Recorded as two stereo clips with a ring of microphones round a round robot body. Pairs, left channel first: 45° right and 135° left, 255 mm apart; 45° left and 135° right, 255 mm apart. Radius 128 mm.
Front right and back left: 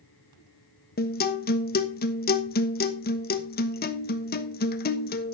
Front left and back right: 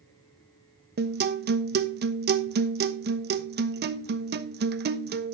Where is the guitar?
90° right, 1.1 m.